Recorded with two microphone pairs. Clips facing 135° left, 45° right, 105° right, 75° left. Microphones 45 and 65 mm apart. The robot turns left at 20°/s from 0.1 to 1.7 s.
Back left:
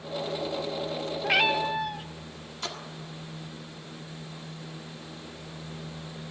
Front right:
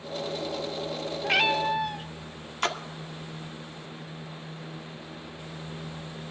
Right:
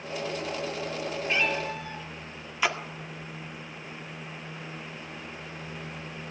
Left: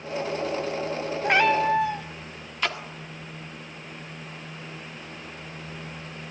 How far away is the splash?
About 1.5 m.